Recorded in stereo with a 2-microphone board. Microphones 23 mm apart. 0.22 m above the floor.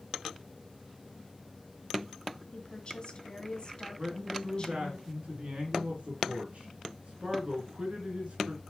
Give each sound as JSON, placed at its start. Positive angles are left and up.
{"t": 2.5, "sound": "a woman speaking", "side_deg": 45, "distance_m": 2.0}
{"t": 4.0, "sound": "a man speaking", "side_deg": -65, "distance_m": 3.0}